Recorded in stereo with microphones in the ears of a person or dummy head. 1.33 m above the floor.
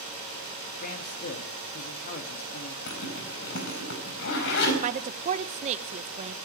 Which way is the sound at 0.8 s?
45° left (ahead or behind).